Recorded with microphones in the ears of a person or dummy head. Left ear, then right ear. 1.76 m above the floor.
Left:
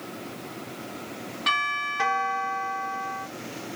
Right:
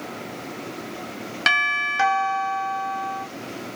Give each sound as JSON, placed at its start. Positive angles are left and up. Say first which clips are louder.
{"t": 1.5, "sound": "a doorbell", "louder": "right 5 dB", "side_deg": -65, "distance_m": 1.1}